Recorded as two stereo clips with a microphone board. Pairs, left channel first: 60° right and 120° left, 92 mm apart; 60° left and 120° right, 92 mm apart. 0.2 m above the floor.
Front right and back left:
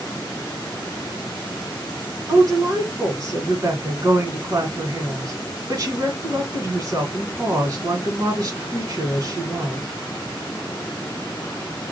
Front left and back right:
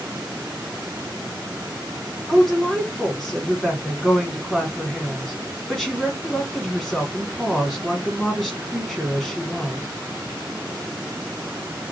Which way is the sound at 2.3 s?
145° left.